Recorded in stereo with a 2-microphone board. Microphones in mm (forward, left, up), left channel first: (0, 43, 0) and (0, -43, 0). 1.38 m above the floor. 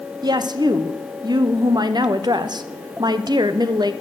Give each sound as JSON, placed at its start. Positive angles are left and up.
{"t": 0.2, "sound": "a woman speaking", "side_deg": -55, "distance_m": 0.8}